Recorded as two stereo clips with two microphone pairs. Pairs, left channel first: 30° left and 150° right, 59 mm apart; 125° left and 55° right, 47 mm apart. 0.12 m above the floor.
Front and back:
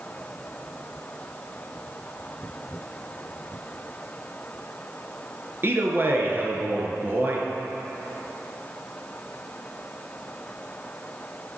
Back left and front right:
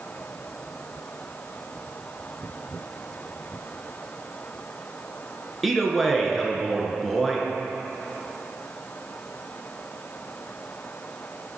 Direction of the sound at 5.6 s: 145° right.